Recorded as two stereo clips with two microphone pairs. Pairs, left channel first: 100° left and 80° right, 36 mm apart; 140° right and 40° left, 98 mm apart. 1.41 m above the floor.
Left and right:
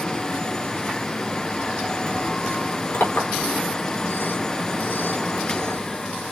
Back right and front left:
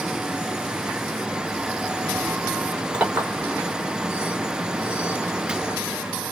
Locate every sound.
2.9 s a clink: 115° left, 4 m